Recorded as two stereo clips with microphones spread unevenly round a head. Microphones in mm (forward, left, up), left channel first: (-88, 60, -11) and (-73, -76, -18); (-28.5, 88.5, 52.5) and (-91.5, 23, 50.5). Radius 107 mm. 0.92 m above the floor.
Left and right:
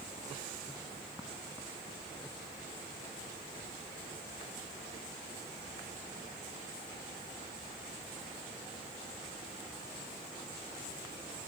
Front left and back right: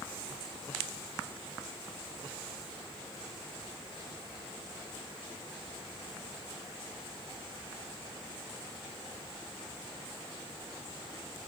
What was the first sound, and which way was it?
Only background noise.